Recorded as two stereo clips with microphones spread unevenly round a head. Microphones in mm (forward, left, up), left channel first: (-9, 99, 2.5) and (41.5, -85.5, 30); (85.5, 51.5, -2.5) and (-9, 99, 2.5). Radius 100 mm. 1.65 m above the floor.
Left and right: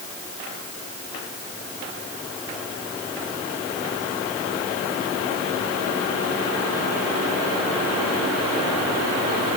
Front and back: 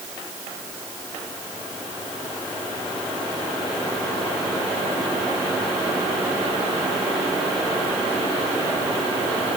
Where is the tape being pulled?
I don't hear tape being pulled.